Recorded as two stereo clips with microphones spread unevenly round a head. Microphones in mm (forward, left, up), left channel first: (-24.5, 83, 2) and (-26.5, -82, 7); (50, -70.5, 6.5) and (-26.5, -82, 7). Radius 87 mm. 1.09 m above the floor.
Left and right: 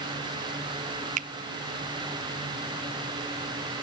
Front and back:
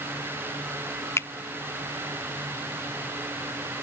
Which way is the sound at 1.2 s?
45° right.